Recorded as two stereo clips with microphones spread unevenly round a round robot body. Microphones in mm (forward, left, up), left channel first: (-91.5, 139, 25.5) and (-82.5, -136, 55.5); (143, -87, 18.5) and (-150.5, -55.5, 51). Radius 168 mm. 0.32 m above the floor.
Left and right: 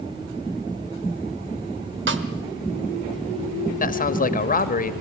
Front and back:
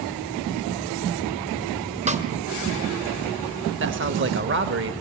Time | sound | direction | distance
2.1 | a snare drum | 120° right | 1.5 m
3.8 | a man speaking | 130° left | 1.3 m